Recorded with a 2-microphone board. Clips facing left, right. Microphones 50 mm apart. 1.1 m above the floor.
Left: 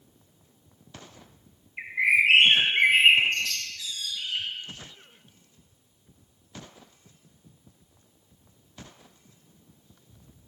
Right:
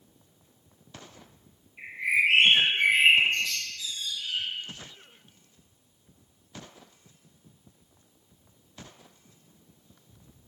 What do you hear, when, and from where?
1.8 s a bird: 75° left (ahead or behind), 2 m